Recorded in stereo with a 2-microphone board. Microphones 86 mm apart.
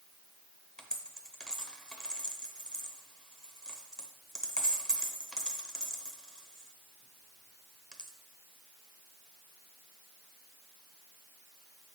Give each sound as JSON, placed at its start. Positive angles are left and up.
{"t": 0.8, "sound": "a dropped coin", "side_deg": 10, "distance_m": 0.8}